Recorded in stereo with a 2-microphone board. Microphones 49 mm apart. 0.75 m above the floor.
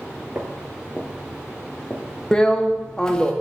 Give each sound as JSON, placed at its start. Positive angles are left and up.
{"t": 0.3, "sound": "footsteps", "side_deg": -35, "distance_m": 0.8}
{"t": 2.3, "sound": "a drill", "side_deg": 15, "distance_m": 0.6}